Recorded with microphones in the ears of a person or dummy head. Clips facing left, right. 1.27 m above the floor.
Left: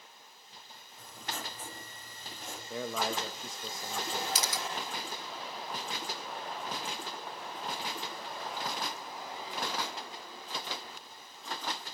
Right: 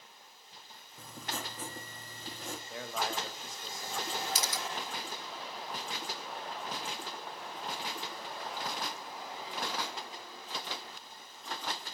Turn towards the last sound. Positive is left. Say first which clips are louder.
# left 1 dB
turn(degrees=55)  # may be behind; listen again after turning